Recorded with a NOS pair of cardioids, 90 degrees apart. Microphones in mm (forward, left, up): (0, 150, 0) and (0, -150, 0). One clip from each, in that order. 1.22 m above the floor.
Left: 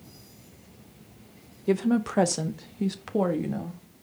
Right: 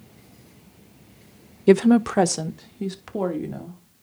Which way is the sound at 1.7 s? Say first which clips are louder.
Right 9 dB; 50° right.